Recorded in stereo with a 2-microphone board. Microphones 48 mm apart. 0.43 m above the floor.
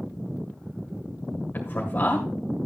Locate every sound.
1.5 s a man speaking: 40° left (ahead or behind), 2 m